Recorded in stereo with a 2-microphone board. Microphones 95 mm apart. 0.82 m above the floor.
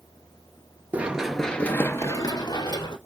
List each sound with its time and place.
0.9 s running footsteps: 15° right (ahead or behind), 0.9 m; by 3.0 s 55° left (ahead or behind), 1.3 m